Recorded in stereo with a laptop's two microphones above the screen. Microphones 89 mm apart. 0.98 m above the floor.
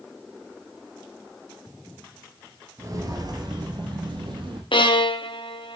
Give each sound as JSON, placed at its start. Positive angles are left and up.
{"t": 2.8, "sound": "footsteps", "side_deg": -35, "distance_m": 1.1}
{"t": 4.7, "sound": "a violin", "side_deg": 70, "distance_m": 0.8}